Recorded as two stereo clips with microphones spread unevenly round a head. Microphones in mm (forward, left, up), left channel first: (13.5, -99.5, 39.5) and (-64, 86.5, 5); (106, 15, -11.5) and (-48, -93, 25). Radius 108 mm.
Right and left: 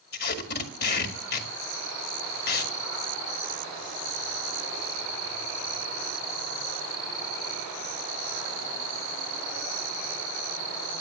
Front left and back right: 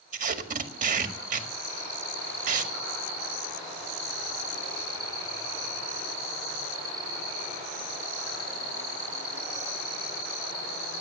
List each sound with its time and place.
0.1 s tape being pulled: 105° right, 1.8 m